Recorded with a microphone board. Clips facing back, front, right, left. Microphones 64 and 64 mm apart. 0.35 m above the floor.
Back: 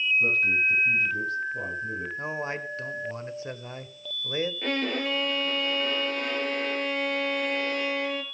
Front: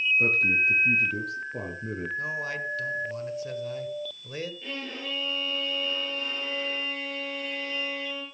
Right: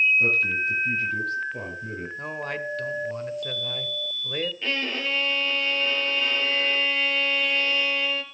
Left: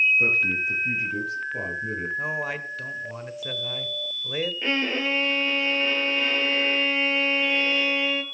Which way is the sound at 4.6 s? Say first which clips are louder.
Back 8 dB, left 3 dB; 155° left.